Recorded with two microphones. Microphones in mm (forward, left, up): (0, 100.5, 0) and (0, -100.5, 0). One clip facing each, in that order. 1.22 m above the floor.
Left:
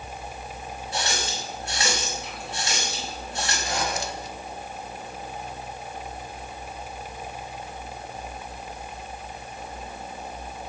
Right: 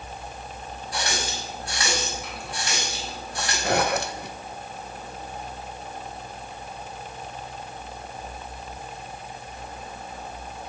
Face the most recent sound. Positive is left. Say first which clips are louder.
# right 8 dB
turn(degrees=-70)  # may be behind; listen again after turning